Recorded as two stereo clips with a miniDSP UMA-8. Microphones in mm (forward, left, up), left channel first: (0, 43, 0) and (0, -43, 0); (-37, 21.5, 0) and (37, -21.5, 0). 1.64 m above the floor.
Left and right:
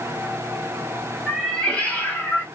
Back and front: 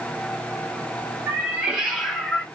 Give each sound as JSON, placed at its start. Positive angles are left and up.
{"t": 1.3, "sound": "a cat meowing", "azimuth_deg": 5, "distance_m": 1.4}